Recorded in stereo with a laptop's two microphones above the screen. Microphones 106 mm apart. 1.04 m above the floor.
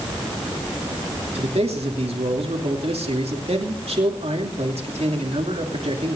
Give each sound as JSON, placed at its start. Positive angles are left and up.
{"t": 1.4, "sound": "a man speaking", "side_deg": -75, "distance_m": 2.5}